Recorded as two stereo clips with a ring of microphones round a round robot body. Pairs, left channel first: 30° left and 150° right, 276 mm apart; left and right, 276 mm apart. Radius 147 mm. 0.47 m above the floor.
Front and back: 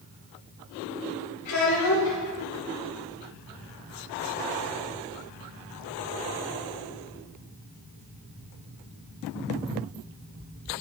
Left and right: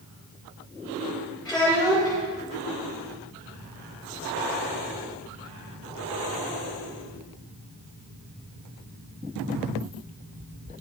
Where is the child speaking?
5° left, 6 m.